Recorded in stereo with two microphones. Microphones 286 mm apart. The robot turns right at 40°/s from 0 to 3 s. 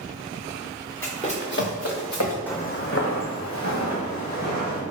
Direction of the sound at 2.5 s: 5° left (ahead or behind).